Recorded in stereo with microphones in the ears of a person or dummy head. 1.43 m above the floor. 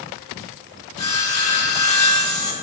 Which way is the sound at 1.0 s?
40° left (ahead or behind).